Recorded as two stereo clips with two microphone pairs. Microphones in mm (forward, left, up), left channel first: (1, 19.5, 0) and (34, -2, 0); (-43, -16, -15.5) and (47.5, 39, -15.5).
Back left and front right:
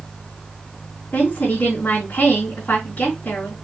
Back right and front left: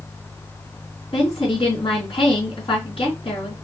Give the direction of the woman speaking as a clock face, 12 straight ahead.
6 o'clock.